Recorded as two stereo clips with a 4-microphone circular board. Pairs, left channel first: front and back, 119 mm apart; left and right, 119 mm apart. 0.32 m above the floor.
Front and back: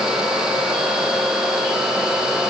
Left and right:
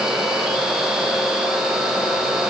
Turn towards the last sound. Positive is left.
No sound to turn to.